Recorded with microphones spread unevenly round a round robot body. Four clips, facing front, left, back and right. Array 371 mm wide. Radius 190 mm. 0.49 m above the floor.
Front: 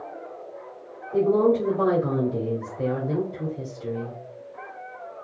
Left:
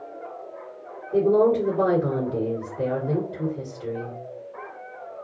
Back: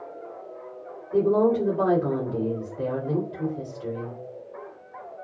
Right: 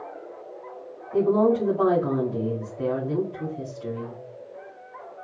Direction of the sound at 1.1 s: 125° left.